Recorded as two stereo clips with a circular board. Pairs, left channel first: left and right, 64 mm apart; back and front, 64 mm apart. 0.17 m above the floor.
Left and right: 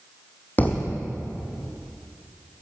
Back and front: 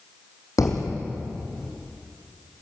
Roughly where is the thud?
Behind left.